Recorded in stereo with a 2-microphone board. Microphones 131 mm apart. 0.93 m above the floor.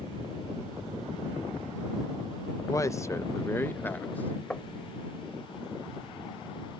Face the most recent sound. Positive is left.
turn(degrees=10)  # may be behind; listen again after turning